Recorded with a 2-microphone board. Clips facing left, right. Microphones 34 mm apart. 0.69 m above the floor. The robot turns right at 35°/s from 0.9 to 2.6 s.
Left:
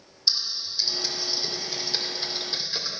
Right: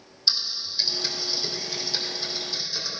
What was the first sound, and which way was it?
Typing on a keyboard, 20° right (ahead or behind).